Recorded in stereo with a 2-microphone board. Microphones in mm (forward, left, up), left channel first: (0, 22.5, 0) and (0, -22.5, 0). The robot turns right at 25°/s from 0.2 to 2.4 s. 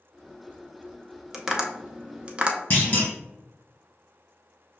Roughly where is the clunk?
Left.